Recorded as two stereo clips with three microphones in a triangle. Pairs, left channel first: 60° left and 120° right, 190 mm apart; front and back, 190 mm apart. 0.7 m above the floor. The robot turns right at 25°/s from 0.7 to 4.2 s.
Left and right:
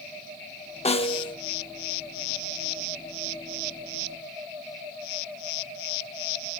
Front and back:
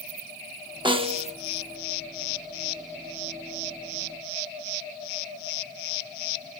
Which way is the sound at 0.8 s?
110° left.